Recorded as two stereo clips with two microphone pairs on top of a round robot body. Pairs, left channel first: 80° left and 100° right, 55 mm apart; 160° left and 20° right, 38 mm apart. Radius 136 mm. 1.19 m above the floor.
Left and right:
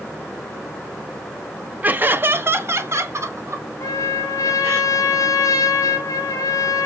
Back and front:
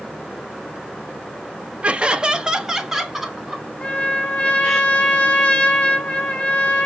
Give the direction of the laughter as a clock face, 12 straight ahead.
2 o'clock.